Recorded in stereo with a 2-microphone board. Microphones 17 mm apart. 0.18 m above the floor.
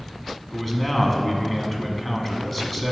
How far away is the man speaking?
About 1.3 m.